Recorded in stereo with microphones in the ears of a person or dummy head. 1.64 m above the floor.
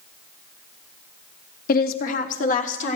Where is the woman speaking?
55° left (ahead or behind), 0.8 m; by 3.0 s 50° left (ahead or behind), 1.5 m.